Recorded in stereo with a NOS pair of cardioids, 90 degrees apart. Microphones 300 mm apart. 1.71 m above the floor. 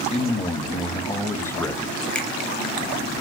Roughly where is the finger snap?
Ahead.